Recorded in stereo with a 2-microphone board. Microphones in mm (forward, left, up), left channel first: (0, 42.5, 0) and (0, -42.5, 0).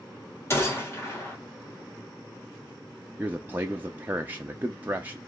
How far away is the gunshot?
About 1.5 m.